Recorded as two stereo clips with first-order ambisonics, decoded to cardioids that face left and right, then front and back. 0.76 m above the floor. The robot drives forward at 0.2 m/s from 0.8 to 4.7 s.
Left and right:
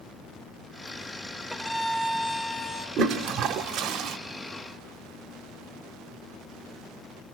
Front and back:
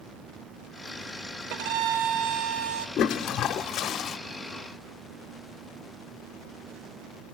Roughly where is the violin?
Behind.